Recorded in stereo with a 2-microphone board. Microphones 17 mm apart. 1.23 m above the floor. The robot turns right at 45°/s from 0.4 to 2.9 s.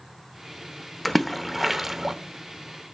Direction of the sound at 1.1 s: 10° left (ahead or behind).